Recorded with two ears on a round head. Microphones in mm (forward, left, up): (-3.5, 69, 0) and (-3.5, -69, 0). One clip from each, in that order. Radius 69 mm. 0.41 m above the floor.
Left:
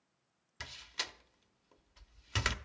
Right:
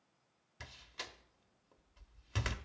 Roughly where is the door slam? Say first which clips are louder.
Left 7 dB; left.